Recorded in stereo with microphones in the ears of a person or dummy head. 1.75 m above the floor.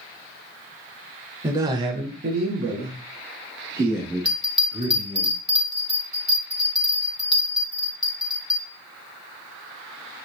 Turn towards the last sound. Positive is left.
turn(degrees=-5)  # may be behind; listen again after turning